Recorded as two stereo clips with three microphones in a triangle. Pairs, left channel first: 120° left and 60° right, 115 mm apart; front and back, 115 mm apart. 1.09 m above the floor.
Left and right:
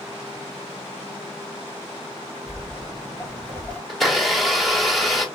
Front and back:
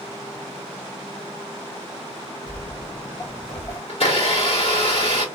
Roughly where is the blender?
Ahead left.